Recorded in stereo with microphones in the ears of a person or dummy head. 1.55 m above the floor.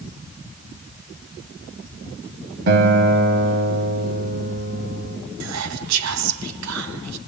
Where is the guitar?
45° right (ahead or behind), 2.0 m.